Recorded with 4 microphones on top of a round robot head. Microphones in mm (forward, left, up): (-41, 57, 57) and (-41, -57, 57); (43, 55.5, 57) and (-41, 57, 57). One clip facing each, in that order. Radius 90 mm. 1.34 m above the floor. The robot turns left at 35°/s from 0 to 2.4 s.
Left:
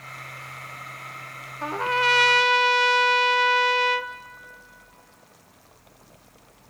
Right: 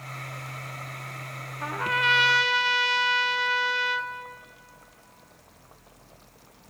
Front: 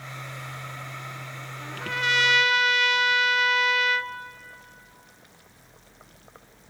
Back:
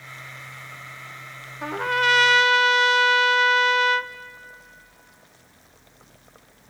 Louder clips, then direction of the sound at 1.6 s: Left 4 dB, back 8 dB; 155° left.